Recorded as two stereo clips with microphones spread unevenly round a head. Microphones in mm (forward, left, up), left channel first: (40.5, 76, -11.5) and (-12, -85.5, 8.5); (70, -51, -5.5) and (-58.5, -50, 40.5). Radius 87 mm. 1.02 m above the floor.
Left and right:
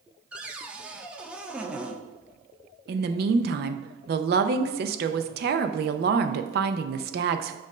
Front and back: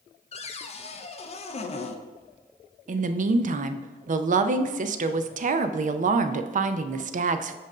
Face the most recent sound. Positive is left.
turn(degrees=-150)